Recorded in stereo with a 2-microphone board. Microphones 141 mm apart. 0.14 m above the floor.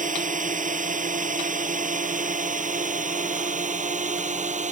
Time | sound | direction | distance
0.0 | a drone | 65° right (ahead or behind) | ?